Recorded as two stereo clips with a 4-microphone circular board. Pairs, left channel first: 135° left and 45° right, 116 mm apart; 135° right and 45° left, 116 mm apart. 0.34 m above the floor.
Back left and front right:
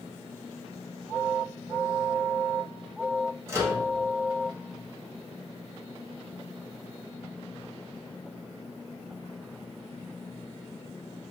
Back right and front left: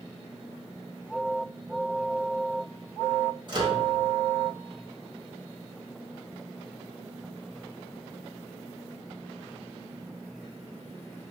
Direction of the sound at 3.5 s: 10° left.